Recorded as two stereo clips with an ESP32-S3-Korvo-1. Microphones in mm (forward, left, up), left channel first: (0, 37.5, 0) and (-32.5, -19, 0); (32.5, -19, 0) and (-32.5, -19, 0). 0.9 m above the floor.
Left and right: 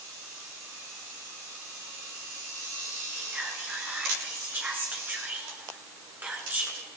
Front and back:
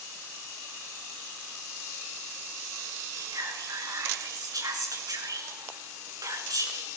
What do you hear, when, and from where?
3.1 s whispering: straight behind, 9 m